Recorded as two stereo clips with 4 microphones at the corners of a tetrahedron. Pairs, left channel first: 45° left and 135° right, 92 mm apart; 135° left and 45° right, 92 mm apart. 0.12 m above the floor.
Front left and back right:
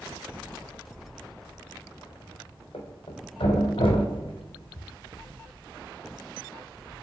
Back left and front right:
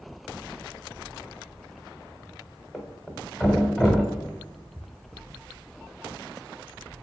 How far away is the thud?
About 0.9 m.